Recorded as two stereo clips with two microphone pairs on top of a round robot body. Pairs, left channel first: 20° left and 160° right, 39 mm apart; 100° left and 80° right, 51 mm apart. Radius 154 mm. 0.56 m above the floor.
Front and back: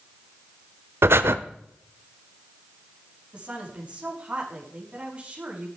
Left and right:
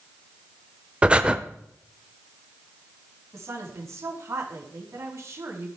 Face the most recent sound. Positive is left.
turn(degrees=-105)